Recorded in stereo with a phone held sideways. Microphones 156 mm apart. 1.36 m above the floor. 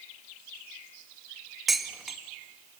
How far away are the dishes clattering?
About 0.9 m.